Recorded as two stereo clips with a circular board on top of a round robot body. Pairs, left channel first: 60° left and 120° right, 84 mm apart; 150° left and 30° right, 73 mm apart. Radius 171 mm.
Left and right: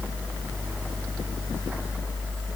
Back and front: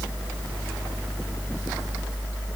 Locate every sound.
Only background noise.